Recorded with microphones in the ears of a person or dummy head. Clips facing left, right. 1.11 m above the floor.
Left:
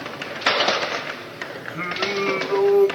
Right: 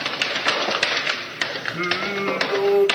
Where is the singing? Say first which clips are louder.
Even; 65° right (ahead or behind), 6 m.